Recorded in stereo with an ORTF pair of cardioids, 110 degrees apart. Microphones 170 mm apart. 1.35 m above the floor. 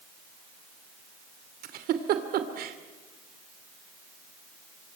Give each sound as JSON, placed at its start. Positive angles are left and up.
{"t": 1.6, "sound": "a giggle", "azimuth_deg": -70, "distance_m": 2.5}